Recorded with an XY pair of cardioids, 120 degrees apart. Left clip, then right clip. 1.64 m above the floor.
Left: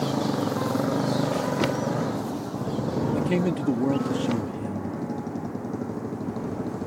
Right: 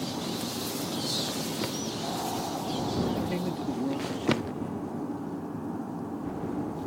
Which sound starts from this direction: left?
A motorcycle, at 0.0 s.